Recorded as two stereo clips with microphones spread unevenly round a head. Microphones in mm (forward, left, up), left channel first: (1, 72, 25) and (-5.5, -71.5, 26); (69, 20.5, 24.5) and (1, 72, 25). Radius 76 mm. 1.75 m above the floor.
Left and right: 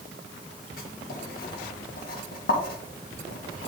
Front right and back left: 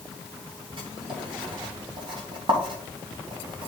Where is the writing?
115° left, 1.8 m.